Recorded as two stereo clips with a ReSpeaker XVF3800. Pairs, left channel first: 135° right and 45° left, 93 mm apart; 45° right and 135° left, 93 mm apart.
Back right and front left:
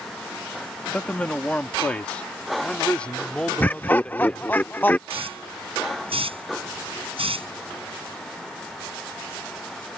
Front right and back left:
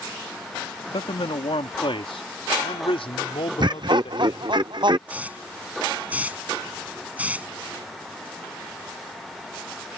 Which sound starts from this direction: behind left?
Laughter, at 3.6 s.